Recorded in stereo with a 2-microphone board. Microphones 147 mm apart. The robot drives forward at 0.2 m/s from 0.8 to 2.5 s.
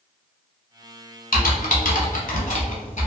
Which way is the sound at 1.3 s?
75° left (ahead or behind).